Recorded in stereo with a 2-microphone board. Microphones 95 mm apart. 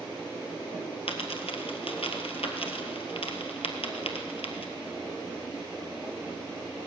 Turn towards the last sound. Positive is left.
turn(degrees=85)